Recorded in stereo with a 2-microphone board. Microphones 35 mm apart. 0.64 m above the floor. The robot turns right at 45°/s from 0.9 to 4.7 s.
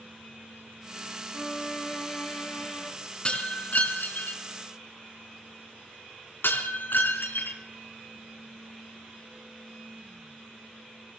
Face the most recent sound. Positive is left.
turn(degrees=85)